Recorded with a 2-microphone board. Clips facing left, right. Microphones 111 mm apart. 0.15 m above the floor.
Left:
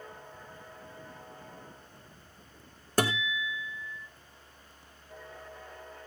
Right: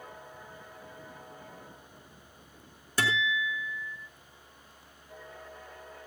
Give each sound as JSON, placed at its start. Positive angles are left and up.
{"t": 3.0, "sound": "a guitar", "side_deg": 45, "distance_m": 2.0}